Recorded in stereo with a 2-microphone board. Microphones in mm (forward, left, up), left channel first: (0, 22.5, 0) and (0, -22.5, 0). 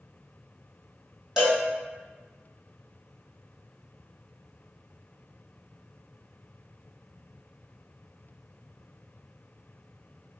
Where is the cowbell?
10° right (ahead or behind), 1.5 m.